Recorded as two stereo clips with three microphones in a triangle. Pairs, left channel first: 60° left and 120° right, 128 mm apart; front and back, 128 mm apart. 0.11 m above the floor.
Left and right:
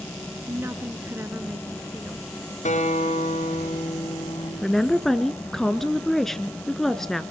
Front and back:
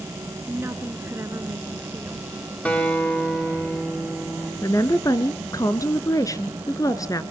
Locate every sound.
0.5 s a woman speaking: 155° right, 1.7 m
2.6 s a guitar: 80° left, 5.5 m
4.6 s a woman speaking: 25° right, 1.3 m